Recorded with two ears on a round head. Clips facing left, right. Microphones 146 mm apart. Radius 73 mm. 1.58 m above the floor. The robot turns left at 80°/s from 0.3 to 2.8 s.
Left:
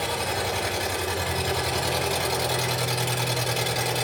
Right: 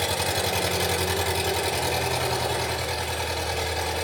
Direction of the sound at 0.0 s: 40° right.